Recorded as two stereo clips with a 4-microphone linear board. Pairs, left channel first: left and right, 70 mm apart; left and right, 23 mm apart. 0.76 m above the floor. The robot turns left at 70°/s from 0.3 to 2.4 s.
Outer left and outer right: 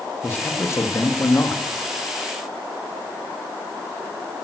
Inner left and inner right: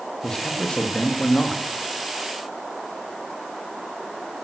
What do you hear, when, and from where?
0.2 s a man speaking: 150° left, 1.3 m; by 1.6 s 55° left, 1.3 m